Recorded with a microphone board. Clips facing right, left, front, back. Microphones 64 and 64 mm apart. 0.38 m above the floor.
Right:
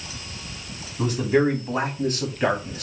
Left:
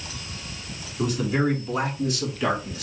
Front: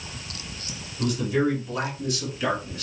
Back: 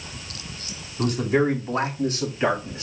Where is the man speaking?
145° right, 3 m; by 2.8 s 120° right, 2 m.